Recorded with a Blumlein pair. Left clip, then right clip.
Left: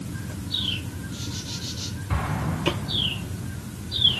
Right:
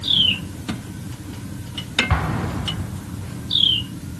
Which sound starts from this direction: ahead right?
An explosion, at 2.1 s.